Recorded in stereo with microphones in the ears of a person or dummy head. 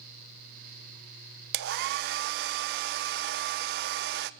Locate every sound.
1.5 s a hair dryer: 60° right (ahead or behind), 0.9 m